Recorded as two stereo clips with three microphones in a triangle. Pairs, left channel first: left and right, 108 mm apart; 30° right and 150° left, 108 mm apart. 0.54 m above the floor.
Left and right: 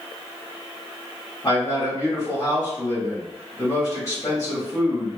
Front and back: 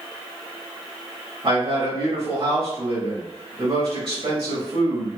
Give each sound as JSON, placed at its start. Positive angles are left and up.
{"t": 1.4, "sound": "a man speaking", "azimuth_deg": 145, "distance_m": 1.4}